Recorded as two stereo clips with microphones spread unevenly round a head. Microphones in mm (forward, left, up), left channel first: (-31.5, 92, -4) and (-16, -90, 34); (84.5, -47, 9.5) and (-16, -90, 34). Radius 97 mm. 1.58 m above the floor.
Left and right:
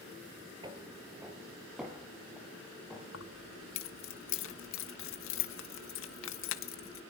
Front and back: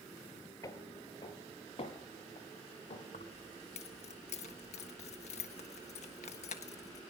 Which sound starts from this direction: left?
Keys jangling, at 3.1 s.